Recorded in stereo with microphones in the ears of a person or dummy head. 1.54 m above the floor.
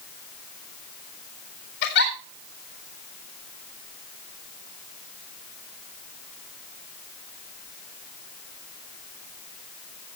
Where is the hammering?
I don't hear hammering.